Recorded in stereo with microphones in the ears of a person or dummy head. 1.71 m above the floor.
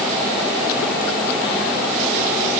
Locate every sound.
Only background noise.